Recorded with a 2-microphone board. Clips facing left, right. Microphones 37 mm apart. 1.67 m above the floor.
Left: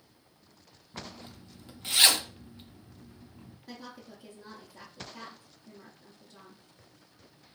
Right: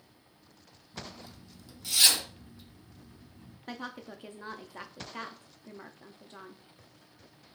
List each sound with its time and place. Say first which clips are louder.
0.9 s a zipper: left 1 dB; 40° left (ahead or behind), 0.5 m
3.7 s a woman speaking: right 6 dB; 55° right (ahead or behind), 0.5 m